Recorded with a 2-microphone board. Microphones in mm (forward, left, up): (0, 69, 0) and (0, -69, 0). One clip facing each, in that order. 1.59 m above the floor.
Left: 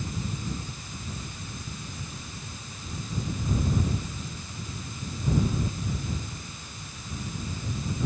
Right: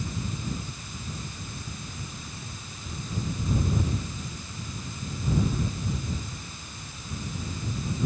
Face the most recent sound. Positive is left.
No sound to turn to.